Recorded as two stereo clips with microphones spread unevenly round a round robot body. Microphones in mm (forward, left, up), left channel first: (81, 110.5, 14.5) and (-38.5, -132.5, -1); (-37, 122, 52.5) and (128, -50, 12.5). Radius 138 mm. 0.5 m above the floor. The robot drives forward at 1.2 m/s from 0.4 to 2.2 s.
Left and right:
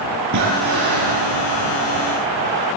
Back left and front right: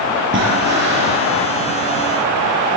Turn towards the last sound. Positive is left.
turn(degrees=-105)